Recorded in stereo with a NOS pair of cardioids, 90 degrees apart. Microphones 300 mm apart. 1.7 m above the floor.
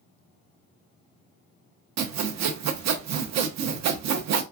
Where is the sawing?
65° right, 0.8 m.